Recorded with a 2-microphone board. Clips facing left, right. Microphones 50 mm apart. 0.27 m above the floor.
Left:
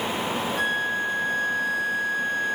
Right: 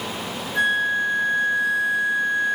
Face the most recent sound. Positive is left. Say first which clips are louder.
# right 8 dB
turn(degrees=-65)  # may be behind; listen again after turning